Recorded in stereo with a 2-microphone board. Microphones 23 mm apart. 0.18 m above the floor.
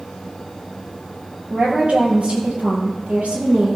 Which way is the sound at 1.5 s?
75° right (ahead or behind).